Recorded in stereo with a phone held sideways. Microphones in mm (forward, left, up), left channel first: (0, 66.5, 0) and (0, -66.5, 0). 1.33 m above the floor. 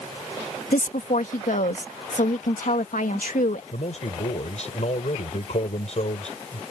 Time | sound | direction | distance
0.7 | a woman speaking | 80° left | ?
3.7 | a man speaking | 55° left (ahead or behind) | ?